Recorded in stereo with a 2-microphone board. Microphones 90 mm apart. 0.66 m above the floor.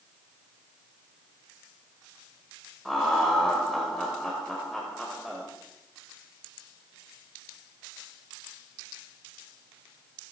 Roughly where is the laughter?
Centre.